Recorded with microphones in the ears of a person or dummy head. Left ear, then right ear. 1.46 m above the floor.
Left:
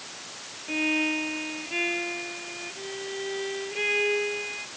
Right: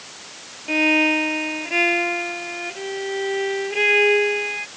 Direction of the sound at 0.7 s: 40° right (ahead or behind).